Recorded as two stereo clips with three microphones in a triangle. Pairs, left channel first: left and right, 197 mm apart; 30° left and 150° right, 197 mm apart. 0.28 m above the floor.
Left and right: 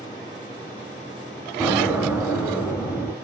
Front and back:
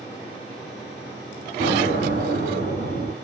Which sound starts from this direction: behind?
An explosion, at 1.6 s.